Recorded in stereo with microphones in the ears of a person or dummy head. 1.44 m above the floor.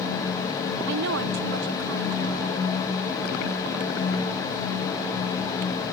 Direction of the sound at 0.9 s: 70° right (ahead or behind).